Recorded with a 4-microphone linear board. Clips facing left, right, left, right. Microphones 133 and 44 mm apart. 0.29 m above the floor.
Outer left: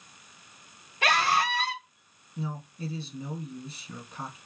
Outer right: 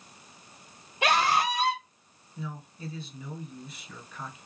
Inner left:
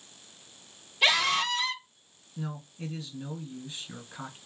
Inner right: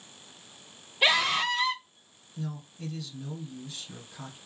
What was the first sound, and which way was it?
A scream, 20° right (ahead or behind).